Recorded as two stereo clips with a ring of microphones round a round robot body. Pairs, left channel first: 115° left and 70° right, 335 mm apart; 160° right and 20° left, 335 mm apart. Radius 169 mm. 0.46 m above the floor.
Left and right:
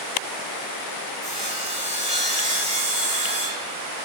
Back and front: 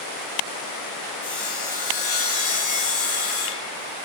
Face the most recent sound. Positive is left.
turn(degrees=-140)